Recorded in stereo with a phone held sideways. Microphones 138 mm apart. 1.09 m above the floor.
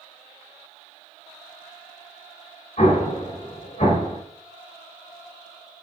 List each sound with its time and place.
2.8 s an explosion: 60° left (ahead or behind), 1.0 m